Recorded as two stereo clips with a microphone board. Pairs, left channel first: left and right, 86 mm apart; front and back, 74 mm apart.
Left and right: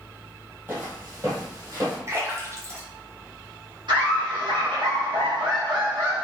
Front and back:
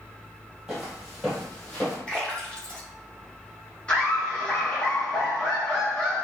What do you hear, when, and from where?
0.7 s footsteps: 105° right, 1.3 m; by 2.0 s 60° right, 1.5 m
2.1 s a splash: 65° right, 0.9 m
3.9 s laughter: 70° right, 1.4 m